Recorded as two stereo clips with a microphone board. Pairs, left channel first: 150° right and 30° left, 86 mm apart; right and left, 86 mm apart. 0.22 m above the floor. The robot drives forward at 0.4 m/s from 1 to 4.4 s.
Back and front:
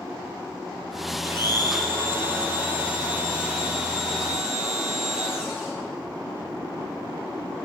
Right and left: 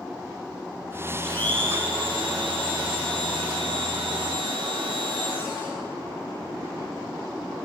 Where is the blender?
90° left, 3 m; by 5.7 s 110° left, 3.5 m.